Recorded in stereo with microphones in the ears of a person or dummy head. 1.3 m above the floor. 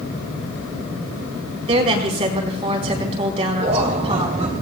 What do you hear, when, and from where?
1.7 s a woman speaking: 35° right (ahead or behind), 4.5 m
3.6 s laughter: 30° right (ahead or behind), 1.0 m